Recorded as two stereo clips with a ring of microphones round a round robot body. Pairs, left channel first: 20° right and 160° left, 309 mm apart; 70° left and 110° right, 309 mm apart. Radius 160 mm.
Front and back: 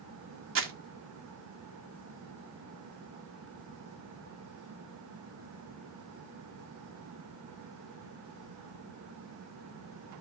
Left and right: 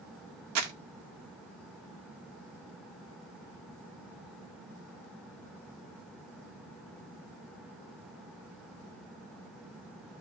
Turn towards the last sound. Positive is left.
turn(degrees=-150)